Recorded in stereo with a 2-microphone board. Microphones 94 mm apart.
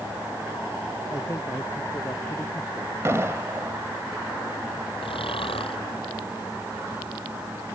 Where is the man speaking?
30° left (ahead or behind).